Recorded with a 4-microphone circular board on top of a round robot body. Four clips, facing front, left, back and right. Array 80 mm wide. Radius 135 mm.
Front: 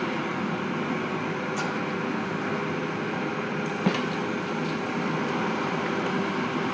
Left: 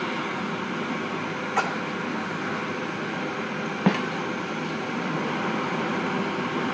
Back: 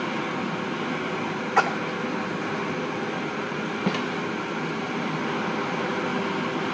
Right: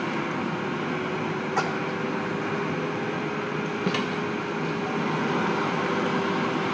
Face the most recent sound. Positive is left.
turn(degrees=85)